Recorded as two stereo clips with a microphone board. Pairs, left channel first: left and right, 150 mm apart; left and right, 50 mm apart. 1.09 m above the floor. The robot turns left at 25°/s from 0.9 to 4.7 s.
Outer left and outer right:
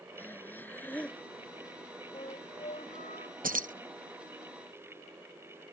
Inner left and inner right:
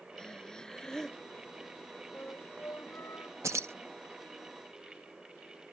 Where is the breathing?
10° left (ahead or behind); by 1.2 s 5° left (ahead or behind).